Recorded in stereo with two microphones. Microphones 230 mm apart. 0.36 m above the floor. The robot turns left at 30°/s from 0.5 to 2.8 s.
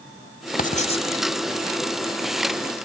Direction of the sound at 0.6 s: 35° left (ahead or behind).